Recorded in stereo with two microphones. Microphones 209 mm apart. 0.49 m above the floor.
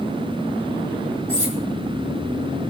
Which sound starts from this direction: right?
Cutlery clinking, at 1.3 s.